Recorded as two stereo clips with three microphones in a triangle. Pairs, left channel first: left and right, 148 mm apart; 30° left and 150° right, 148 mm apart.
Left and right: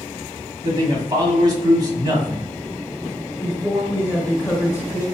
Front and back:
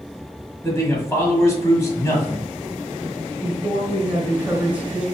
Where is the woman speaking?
140° left, 1.3 m.